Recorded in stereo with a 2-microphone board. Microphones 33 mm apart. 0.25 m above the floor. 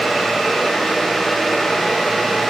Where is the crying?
No crying in this recording.